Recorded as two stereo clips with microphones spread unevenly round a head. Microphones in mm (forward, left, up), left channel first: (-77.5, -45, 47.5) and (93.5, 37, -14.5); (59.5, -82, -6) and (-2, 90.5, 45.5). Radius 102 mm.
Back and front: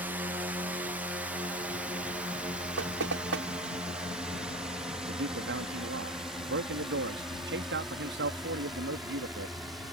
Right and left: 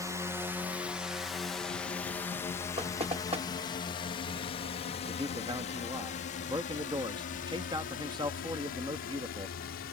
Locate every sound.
0.0 s a drone: 25° left; by 9.9 s 55° right
2.8 s knocking: 50° left
5.1 s a man speaking: 40° left